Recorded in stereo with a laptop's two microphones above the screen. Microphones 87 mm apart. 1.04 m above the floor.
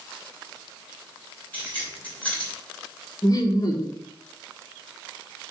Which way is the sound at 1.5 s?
15° left (ahead or behind).